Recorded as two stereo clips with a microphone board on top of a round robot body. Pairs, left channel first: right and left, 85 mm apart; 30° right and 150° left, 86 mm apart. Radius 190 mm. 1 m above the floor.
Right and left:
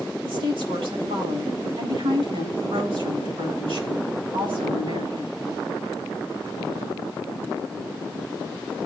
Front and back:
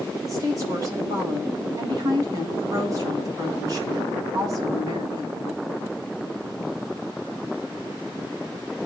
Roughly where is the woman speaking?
Left.